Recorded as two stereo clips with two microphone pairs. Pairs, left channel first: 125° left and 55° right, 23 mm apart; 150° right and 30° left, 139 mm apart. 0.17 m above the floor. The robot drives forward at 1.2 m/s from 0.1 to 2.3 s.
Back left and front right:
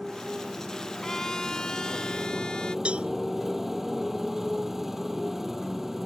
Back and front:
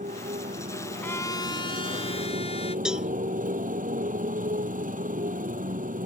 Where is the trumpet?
160° left; by 2.8 s 175° left.